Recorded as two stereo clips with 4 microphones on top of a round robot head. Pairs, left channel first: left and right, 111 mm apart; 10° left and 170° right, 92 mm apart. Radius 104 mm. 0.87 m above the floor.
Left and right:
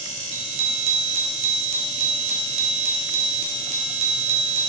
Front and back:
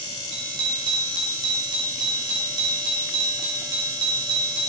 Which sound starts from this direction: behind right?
A bicycle bell, at 0.3 s.